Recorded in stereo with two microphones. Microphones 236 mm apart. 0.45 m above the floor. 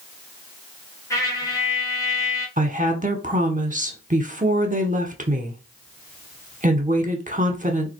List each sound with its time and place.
1.1 s a trumpet: 15° left (ahead or behind), 1.4 m
2.6 s a woman speaking: 30° right (ahead or behind), 0.9 m